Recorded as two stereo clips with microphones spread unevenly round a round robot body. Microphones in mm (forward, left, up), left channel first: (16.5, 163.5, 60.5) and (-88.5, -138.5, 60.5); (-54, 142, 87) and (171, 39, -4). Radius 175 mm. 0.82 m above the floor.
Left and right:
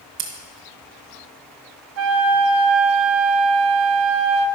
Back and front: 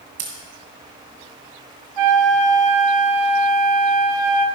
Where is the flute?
65° right, 0.7 m.